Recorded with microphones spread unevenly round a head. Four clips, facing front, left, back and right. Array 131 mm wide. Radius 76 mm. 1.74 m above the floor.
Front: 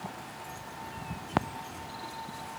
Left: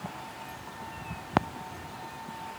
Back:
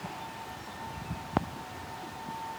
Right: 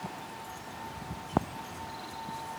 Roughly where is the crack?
No crack in this recording.